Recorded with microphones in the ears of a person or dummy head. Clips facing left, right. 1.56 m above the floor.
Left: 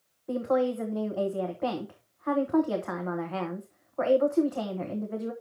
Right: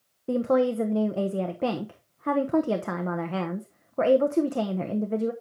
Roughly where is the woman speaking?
Right.